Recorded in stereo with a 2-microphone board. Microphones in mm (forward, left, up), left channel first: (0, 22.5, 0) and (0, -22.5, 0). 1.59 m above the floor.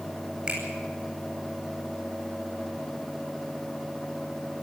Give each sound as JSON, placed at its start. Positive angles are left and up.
{"t": 0.5, "sound": "a finger snap", "side_deg": -20, "distance_m": 10.0}